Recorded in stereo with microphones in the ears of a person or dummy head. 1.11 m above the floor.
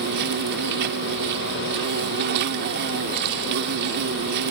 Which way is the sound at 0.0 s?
60° right (ahead or behind).